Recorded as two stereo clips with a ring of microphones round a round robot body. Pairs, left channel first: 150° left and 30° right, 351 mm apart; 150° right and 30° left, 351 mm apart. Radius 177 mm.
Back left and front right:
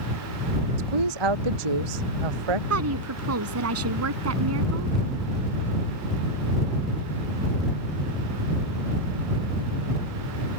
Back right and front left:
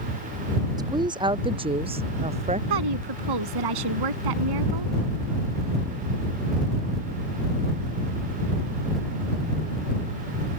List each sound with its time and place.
0.8 s a woman speaking: 50° right; by 2.6 s 45° right
2.7 s a woman speaking: 15° left